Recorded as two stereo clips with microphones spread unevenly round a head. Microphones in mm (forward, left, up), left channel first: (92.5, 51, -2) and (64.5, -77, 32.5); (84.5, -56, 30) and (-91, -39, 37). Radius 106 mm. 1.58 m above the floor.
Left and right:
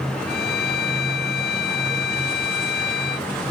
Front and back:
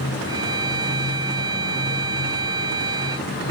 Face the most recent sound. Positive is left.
turn(degrees=100)